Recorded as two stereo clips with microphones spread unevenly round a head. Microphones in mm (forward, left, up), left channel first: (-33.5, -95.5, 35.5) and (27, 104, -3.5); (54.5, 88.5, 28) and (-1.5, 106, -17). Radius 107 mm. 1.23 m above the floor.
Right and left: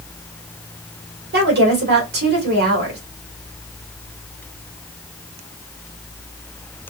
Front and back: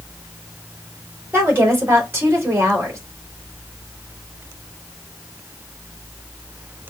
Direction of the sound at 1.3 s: 115° left.